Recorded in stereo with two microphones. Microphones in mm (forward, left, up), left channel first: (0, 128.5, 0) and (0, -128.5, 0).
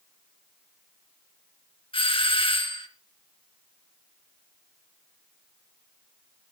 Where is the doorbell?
20° left (ahead or behind), 1.5 m.